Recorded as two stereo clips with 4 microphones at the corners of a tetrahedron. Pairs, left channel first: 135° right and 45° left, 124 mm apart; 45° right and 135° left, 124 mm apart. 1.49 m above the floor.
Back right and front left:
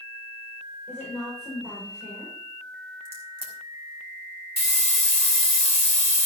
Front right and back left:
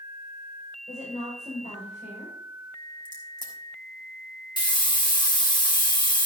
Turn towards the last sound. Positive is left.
turn(degrees=-100)